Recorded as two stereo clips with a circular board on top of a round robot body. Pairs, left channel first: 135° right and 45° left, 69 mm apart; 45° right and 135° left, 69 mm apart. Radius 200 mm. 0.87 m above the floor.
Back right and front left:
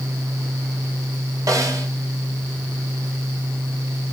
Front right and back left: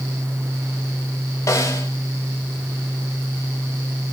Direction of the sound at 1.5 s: 5° left.